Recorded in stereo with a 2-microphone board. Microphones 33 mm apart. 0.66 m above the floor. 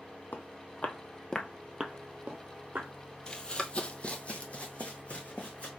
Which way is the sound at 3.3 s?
25° left (ahead or behind).